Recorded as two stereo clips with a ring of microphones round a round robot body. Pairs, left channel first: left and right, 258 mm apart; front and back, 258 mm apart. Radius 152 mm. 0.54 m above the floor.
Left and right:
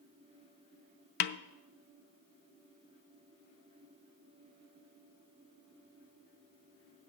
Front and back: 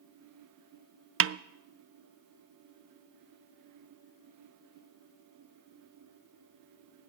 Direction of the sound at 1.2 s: 140° left.